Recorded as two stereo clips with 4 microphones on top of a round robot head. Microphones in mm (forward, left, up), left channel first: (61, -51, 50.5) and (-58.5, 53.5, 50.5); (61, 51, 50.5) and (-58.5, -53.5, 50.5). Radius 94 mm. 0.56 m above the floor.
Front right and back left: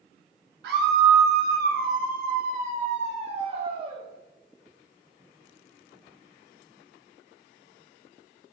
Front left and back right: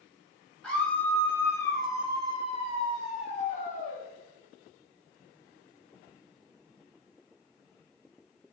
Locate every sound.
0.6 s a scream: 125° left, 3 m; by 4.0 s 80° left, 2.5 m